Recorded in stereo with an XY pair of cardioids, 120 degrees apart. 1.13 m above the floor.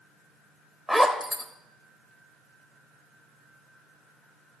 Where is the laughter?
I don't hear laughter.